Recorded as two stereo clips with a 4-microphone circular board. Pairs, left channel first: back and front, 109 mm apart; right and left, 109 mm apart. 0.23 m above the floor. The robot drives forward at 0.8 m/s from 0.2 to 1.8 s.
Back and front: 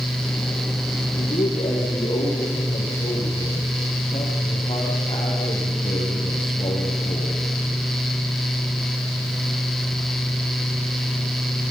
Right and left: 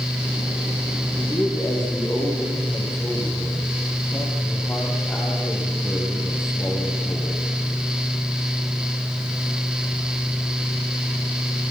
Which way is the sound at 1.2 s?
155° right.